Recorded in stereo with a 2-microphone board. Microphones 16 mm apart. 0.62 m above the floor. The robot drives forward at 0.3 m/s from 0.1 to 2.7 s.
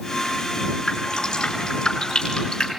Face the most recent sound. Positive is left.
turn(degrees=35)  # may be behind; listen again after turning